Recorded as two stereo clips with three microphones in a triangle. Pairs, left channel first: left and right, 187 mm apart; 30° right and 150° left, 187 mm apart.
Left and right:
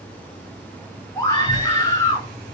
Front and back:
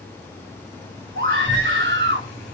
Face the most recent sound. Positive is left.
turn(degrees=165)